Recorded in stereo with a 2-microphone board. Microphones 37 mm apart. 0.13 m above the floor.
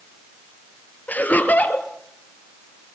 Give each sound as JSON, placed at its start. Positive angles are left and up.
{"t": 1.1, "sound": "laughter", "side_deg": 50, "distance_m": 2.0}